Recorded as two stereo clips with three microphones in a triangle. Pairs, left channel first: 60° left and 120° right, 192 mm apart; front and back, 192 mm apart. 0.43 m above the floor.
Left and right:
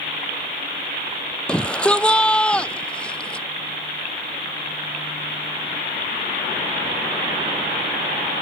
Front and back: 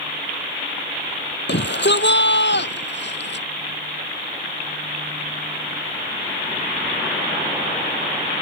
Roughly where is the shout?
Ahead right.